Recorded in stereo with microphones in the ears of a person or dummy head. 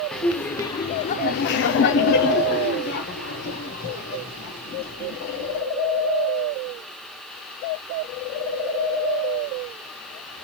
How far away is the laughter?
About 0.8 m.